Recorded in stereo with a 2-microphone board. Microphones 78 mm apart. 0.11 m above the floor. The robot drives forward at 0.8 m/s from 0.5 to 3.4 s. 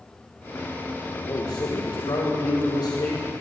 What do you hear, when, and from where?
1.1 s a man speaking: 75° left (ahead or behind), 4 m; by 3.3 s 65° left (ahead or behind), 4 m